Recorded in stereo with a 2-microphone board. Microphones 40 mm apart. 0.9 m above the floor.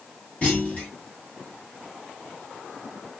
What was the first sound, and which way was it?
A clunk, 30° left (ahead or behind).